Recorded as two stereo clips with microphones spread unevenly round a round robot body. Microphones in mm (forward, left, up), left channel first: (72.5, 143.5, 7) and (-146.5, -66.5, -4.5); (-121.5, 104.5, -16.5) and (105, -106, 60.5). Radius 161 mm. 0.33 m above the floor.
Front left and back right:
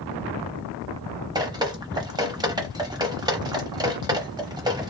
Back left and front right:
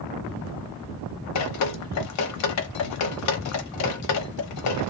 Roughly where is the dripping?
Behind left.